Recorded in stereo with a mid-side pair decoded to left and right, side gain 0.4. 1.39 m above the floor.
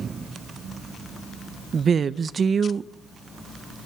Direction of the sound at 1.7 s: 50° right.